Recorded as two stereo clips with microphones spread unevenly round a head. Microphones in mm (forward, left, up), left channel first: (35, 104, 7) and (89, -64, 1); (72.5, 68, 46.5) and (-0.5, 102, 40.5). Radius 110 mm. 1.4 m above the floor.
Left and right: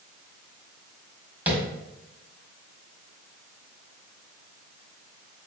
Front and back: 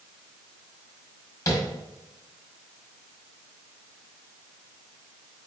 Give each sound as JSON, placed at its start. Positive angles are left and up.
{"t": 1.5, "sound": "tapping", "azimuth_deg": 10, "distance_m": 1.7}